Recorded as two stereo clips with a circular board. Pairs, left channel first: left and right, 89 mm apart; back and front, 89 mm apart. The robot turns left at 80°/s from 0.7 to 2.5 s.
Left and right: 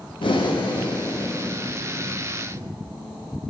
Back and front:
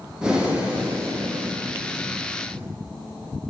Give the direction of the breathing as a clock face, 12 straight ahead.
9 o'clock.